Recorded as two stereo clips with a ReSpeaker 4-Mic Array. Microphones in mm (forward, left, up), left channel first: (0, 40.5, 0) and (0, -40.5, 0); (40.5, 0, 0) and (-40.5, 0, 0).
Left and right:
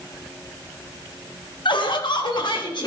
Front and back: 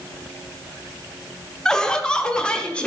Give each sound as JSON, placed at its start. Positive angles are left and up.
{"t": 1.6, "sound": "laughter", "azimuth_deg": 80, "distance_m": 1.2}